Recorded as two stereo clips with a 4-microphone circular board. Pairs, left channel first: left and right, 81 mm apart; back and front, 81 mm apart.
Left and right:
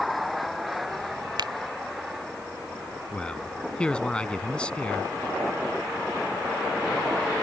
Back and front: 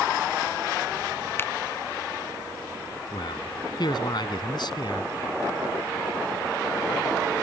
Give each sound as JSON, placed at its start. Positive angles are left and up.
{"t": 1.4, "sound": "a finger snap", "azimuth_deg": -115}
{"t": 3.1, "sound": "a man speaking", "azimuth_deg": 165}